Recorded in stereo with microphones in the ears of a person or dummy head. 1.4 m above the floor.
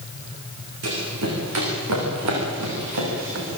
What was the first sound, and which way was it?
Running footsteps, 75° right (ahead or behind).